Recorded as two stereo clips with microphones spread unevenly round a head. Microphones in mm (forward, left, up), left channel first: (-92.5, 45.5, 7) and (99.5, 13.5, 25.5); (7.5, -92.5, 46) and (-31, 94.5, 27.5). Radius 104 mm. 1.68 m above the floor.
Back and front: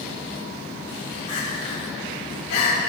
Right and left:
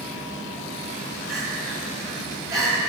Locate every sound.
1.3 s crying: 175° left, 3.5 m